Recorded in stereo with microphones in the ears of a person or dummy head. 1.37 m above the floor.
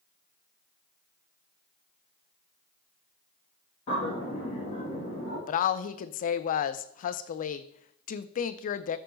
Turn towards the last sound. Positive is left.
turn(degrees=45)  # may be behind; listen again after turning